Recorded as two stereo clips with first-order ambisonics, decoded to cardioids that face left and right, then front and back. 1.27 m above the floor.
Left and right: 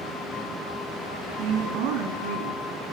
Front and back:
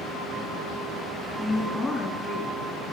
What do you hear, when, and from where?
1.4 s a woman speaking: 90° right, 2.5 m